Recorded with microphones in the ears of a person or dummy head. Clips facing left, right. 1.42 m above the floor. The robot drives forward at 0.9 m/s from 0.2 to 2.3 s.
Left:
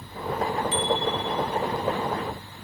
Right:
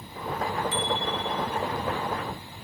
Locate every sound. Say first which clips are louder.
0.7 s a bicycle bell: left 4 dB; 15° left (ahead or behind); by 1.6 s 20° left (ahead or behind)